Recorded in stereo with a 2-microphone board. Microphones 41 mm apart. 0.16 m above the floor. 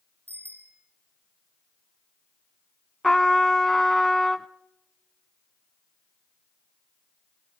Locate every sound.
0.3 s a bicycle bell: 45° left (ahead or behind), 4 m
3.0 s a trumpet: 10° left (ahead or behind), 0.7 m